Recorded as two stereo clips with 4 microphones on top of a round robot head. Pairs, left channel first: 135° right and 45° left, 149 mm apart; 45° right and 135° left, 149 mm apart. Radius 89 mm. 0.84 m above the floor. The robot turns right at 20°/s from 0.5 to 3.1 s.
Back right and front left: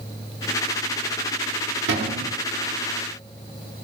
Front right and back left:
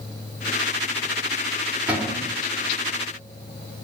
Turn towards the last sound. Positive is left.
turn(degrees=75)